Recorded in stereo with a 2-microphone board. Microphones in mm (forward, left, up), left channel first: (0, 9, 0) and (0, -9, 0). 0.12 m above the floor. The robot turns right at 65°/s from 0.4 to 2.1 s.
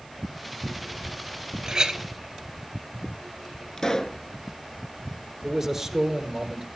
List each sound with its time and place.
1.6 s a clink: 35° right (ahead or behind), 1.1 m; by 2.0 s 50° right (ahead or behind), 1.1 m
3.8 s a pop: 35° left (ahead or behind), 0.5 m
5.4 s a man speaking: 20° right (ahead or behind), 2 m